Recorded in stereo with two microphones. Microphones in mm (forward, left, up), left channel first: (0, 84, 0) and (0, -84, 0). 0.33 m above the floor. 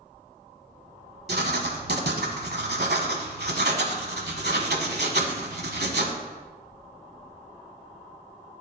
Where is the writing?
75° right (ahead or behind), 0.9 m.